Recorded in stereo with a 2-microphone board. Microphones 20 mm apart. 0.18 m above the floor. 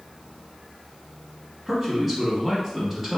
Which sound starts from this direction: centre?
A man speaking, at 1.7 s.